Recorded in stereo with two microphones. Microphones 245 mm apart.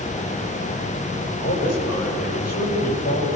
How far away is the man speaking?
About 9.5 m.